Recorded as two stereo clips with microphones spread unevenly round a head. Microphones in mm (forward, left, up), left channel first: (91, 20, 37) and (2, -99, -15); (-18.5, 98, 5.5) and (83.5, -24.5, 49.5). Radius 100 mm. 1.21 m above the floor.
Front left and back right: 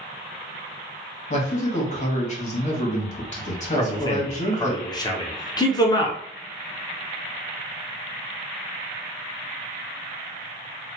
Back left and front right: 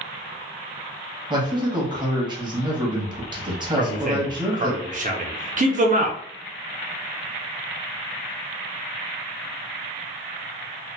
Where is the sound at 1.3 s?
15° left, 1.1 m.